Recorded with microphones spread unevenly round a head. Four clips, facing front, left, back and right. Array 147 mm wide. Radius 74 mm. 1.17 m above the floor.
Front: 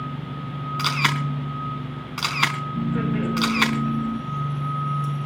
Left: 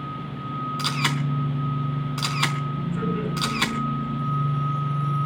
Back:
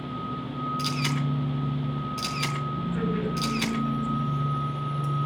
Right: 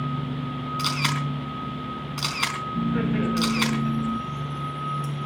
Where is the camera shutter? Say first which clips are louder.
Right 1 dB, front 8 dB; 5° left, 4 m.